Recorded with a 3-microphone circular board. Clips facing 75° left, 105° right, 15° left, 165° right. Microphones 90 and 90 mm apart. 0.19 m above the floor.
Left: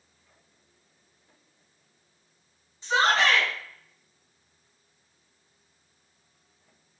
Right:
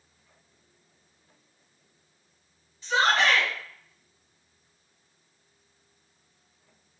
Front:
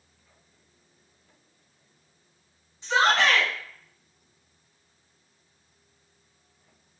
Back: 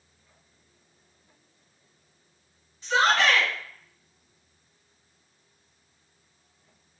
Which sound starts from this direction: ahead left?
A shout, at 2.8 s.